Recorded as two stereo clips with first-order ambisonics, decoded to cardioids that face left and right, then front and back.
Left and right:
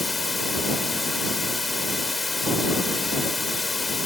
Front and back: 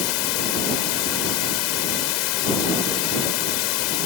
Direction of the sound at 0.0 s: 10° left.